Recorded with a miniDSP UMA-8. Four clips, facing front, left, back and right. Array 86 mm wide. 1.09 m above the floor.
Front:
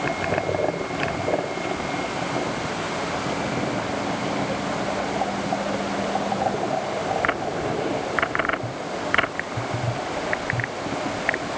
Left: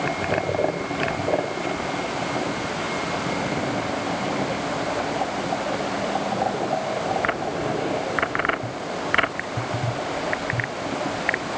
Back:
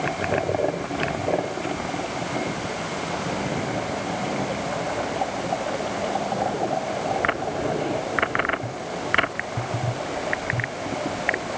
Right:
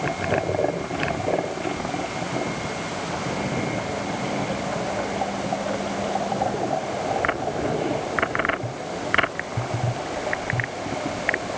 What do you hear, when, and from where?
Only background noise.